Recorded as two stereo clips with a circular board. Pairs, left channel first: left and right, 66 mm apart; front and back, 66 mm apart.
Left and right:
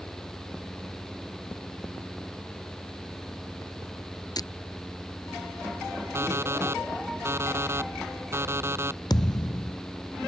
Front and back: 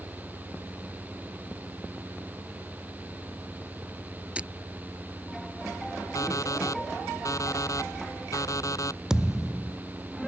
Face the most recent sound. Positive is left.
turn(degrees=100)